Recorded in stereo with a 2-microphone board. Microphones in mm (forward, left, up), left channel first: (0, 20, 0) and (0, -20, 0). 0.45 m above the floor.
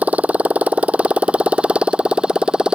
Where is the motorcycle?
35° right (ahead or behind); by 2.8 s 20° right (ahead or behind).